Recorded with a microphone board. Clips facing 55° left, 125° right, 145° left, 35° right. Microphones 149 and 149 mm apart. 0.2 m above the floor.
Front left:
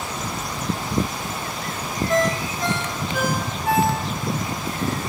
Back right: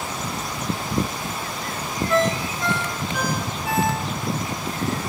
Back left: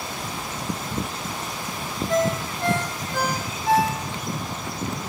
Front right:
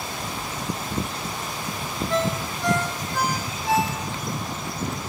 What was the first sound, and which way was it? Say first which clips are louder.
A ringtone: even, back left 3 dB; 110° left.